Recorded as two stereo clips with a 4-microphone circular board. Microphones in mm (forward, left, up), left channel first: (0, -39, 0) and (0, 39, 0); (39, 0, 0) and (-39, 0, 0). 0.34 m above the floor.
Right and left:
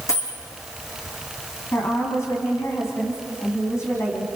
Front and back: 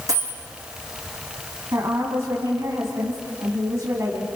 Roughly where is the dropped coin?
Behind right.